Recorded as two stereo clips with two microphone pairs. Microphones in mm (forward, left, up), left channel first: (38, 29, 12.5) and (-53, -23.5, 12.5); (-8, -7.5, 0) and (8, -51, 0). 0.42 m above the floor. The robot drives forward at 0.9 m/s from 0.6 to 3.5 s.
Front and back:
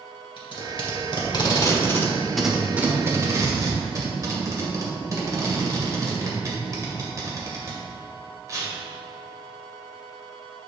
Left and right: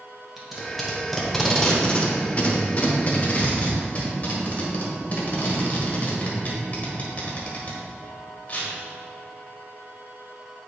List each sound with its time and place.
0.4 s tape being pulled: 20° left, 1.7 m; by 8.7 s 160° left, 1.6 m